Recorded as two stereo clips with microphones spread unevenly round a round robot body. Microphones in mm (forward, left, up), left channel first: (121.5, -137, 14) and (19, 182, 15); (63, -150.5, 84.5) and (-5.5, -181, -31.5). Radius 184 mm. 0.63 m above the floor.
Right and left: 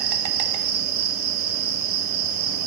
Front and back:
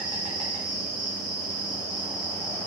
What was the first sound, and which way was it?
An insect, 70° left.